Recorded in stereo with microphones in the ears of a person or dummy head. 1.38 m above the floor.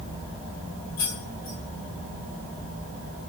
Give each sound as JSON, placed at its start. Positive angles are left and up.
{"t": 1.0, "sound": "keys jangling", "side_deg": 20, "distance_m": 0.7}